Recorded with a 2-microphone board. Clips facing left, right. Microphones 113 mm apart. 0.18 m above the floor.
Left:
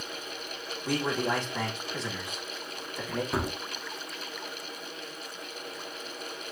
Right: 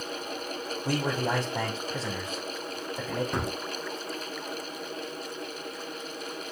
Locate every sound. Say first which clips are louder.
0.8 s a man speaking: even; 35° right (ahead or behind), 6 m
3.3 s a gunshot: even; 5° left (ahead or behind), 0.6 m